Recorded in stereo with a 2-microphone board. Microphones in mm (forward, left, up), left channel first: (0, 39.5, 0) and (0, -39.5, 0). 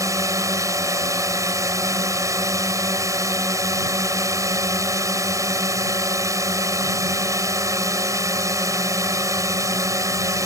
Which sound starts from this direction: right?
A drone, at 0.0 s.